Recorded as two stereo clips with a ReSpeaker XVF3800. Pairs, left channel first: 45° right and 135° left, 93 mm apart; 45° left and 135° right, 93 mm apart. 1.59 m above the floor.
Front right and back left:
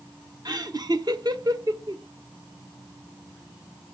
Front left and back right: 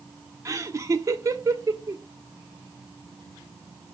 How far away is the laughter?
About 1.3 m.